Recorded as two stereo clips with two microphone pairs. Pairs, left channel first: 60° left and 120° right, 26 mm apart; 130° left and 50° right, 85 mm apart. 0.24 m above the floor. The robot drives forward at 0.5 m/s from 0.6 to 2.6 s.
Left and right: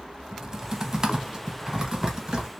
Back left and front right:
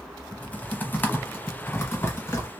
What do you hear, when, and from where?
0.3 s typing on a keyboard: 165° right, 0.8 m; by 2.5 s 175° right, 1.6 m